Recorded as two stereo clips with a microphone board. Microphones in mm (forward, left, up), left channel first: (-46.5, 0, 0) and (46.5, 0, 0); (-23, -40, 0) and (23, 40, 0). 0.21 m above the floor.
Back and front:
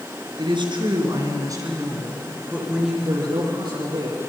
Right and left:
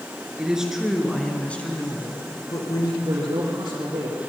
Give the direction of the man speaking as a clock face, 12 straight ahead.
11 o'clock.